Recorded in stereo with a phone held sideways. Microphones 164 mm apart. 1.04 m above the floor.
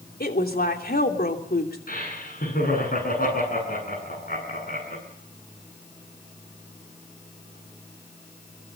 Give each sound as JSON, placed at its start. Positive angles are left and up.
{"t": 0.2, "sound": "a woman speaking", "side_deg": 65, "distance_m": 3.0}
{"t": 1.9, "sound": "laughter", "side_deg": 60, "distance_m": 9.5}